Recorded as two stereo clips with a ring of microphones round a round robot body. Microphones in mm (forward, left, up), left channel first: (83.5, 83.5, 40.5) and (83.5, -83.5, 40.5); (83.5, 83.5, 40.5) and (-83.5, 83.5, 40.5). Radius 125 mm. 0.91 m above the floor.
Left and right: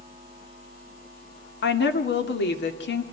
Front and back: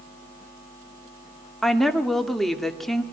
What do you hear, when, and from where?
1.6 s a woman speaking: 90° left, 2 m